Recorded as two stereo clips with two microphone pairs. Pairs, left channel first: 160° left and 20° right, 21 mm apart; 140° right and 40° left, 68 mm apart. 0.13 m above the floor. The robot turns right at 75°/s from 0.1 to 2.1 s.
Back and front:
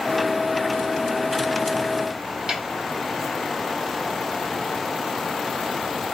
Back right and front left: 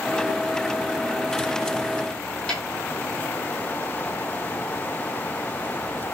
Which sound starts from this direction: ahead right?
A snare drum, at 2.5 s.